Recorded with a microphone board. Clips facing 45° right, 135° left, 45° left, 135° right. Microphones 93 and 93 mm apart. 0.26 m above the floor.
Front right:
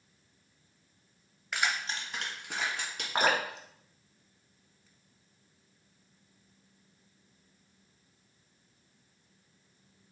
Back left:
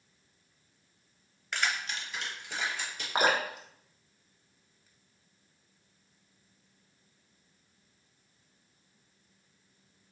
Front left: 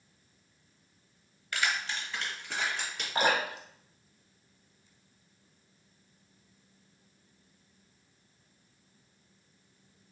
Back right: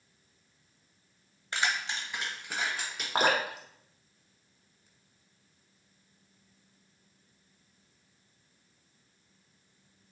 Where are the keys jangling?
130° right, 0.7 m; by 3.0 s 55° right, 2 m.